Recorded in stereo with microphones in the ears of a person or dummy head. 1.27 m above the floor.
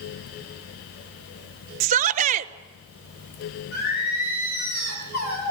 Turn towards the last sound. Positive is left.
turn(degrees=50)  # may be behind; listen again after turning